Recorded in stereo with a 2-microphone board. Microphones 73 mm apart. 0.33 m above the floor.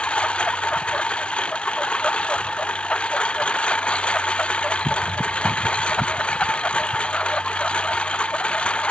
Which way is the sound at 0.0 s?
15° left (ahead or behind).